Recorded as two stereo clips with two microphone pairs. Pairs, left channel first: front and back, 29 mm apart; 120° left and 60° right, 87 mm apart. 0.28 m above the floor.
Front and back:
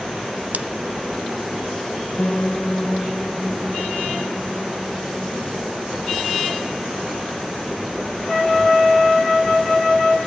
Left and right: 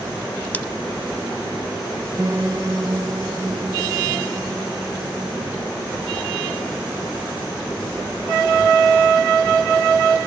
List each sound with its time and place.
0.5 s scissors: 175° right, 0.5 m
2.2 s a piano: 15° right, 1.9 m